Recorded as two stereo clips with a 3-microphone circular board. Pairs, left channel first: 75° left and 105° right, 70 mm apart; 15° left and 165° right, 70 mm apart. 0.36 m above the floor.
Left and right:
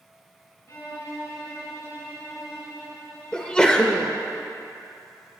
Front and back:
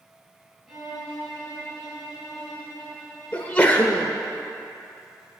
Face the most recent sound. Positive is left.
turn(degrees=20)